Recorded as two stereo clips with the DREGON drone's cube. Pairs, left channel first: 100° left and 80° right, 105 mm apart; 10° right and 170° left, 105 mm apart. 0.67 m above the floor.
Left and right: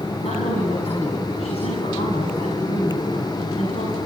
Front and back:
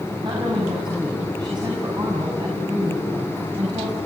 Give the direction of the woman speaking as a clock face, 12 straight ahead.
8 o'clock.